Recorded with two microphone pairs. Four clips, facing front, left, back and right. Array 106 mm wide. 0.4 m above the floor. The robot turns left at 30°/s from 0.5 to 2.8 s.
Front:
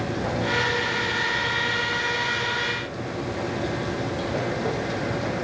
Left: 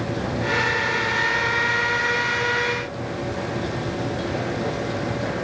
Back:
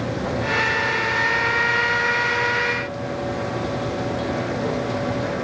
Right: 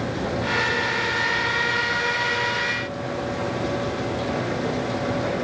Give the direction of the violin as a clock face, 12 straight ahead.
No violin in this recording.